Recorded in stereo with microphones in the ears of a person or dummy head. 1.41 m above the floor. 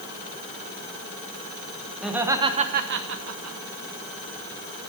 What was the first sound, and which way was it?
Laughter, 5° right (ahead or behind).